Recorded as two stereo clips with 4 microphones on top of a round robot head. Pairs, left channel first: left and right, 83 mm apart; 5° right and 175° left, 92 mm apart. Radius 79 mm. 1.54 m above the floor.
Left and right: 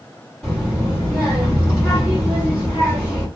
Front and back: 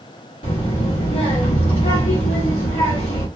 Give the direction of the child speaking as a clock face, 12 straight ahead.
12 o'clock.